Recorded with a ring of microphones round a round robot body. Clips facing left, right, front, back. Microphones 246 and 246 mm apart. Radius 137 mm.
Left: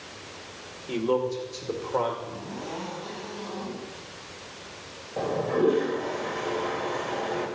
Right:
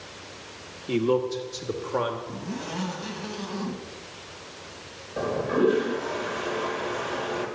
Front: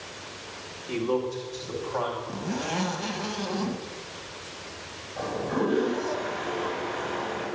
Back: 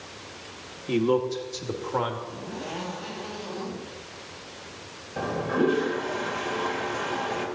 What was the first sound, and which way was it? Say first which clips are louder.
A man speaking: right 2 dB, back 4 dB; 145° right.